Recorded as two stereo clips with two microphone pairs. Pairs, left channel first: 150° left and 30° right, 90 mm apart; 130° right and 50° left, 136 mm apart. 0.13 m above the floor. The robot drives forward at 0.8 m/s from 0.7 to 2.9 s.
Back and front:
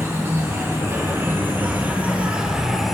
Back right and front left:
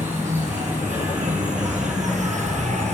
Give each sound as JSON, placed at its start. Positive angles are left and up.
{"t": 0.0, "sound": "an insect", "azimuth_deg": 30, "distance_m": 3.0}